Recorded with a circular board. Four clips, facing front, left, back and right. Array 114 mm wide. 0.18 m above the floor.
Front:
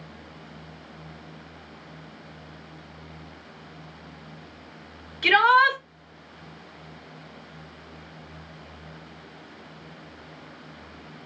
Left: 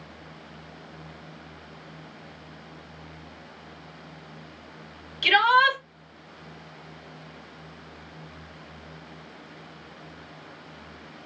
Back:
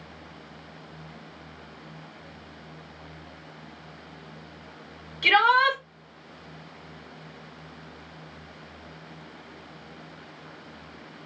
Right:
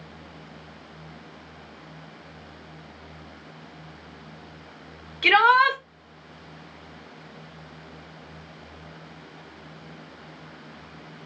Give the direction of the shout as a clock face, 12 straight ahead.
3 o'clock.